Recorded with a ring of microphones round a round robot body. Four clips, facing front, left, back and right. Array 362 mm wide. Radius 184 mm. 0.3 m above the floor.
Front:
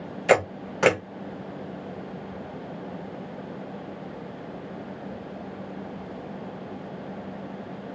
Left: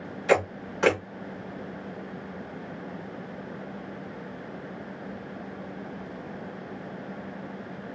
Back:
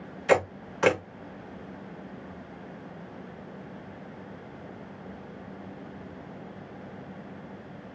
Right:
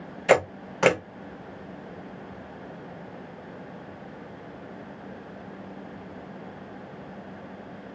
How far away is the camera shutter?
About 1.4 m.